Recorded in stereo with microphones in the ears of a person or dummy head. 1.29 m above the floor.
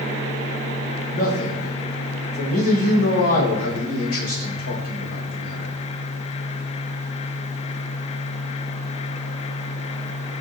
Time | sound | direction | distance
1.1 | a man speaking | 50° left (ahead or behind) | 1.0 m